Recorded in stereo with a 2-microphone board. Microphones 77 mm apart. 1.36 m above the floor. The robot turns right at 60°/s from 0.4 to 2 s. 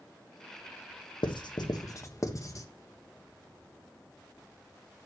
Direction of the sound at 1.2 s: 85° left.